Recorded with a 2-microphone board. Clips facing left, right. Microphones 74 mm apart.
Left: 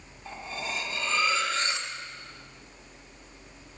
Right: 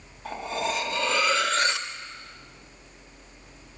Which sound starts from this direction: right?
Cutlery clinking, at 0.2 s.